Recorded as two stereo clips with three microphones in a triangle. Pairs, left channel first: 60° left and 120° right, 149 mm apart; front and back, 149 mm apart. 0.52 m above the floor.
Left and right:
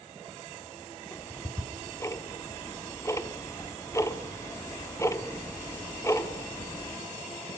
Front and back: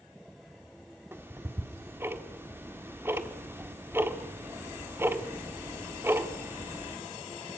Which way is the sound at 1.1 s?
115° left.